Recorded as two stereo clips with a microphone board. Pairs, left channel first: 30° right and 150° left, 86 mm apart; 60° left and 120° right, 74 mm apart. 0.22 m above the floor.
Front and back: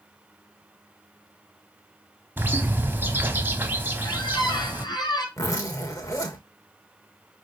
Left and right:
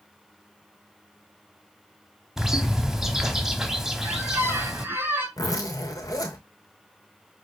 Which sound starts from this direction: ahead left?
A zipper, at 5.4 s.